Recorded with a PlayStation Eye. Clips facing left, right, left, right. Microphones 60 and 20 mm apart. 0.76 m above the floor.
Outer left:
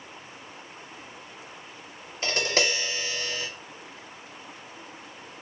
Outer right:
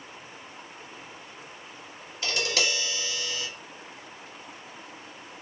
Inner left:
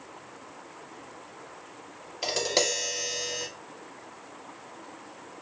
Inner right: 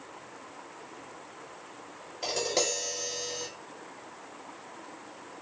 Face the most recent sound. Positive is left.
turn(degrees=40)  # may be behind; listen again after turning